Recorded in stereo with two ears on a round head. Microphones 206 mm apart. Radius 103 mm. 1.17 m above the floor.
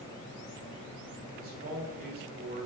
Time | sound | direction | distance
1.4 | a man speaking | 40° right (ahead or behind) | 3.5 m